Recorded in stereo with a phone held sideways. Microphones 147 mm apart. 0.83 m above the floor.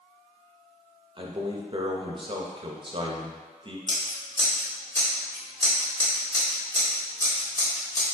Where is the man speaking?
35° right (ahead or behind), 0.6 m.